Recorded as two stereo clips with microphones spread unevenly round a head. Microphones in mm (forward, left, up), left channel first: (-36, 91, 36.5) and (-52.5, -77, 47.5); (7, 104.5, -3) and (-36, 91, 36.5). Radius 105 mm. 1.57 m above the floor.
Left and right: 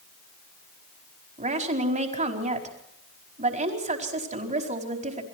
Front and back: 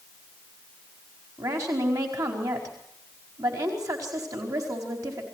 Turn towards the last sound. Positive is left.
turn(degrees=-145)